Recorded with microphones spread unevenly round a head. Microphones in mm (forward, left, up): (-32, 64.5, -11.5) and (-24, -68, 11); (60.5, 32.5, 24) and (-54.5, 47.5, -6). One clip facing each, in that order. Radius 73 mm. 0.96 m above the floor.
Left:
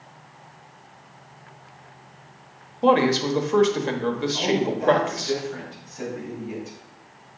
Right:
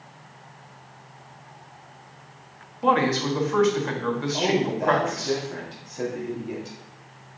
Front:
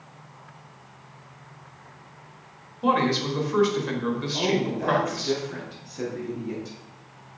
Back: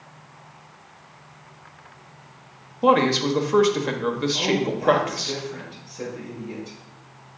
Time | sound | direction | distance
2.8 | a man speaking | 145° left | 1.2 m
4.3 | a woman speaking | 25° right | 2.5 m